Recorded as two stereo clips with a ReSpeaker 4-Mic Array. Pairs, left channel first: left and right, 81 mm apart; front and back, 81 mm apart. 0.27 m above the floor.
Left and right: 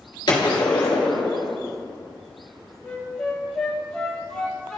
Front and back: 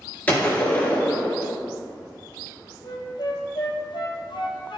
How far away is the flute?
About 1.1 m.